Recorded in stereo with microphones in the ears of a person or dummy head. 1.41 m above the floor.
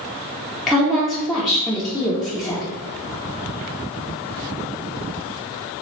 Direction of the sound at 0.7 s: Centre (ahead or behind).